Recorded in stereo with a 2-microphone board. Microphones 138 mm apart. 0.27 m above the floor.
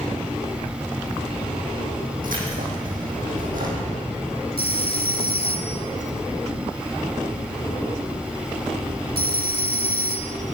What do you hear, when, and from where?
2.2 s keys jangling: 85° right, 7.5 m
4.6 s a phone ringing: 45° left (ahead or behind), 2 m